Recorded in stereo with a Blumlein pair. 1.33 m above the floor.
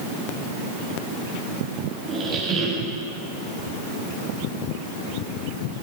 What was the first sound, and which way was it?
A squeak, 20° right.